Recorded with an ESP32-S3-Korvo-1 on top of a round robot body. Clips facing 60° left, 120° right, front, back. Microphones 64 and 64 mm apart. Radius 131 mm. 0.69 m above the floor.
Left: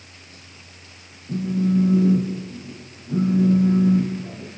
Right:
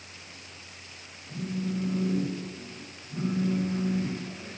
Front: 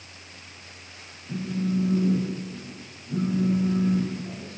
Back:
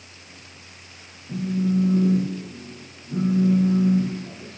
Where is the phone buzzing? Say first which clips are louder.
Left 11 dB, back 4 dB; 95° left, 7.5 m.